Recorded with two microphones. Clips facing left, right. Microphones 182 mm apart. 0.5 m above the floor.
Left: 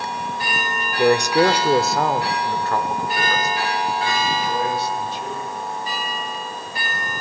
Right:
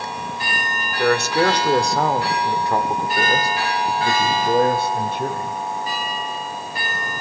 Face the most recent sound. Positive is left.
turn(degrees=-60)  # may be behind; listen again after turning